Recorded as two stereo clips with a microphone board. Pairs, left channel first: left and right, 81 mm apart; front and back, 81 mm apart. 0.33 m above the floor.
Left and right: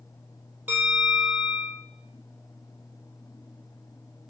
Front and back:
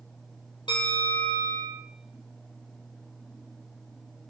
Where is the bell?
25° right, 4 m.